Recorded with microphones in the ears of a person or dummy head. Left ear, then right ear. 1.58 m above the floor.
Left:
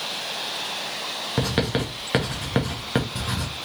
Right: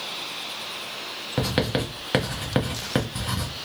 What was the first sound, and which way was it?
Writing, centre (ahead or behind).